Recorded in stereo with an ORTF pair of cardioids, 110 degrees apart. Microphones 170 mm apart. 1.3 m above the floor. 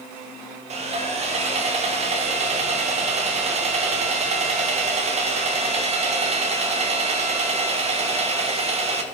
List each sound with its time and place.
0.7 s sawing: 40° right, 2.5 m